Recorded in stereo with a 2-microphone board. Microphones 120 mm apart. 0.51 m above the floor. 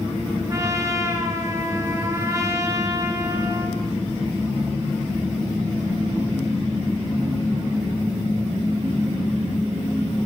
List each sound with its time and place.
0.5 s a trumpet: 30° right (ahead or behind), 3 m